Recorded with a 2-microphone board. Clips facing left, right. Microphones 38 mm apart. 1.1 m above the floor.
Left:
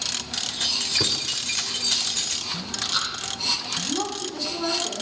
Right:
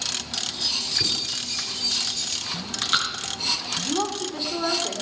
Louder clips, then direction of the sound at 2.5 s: Right 4 dB; 50° right (ahead or behind).